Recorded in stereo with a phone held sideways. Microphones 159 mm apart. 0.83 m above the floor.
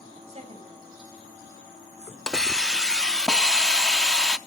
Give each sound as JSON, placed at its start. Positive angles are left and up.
{"t": 0.3, "sound": "a woman speaking", "side_deg": -45, "distance_m": 5.0}
{"t": 2.3, "sound": "a hiss", "side_deg": 5, "distance_m": 0.5}